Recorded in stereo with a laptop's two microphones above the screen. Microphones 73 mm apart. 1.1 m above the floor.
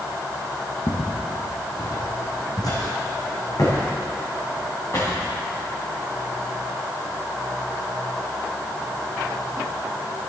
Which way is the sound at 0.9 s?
60° left (ahead or behind).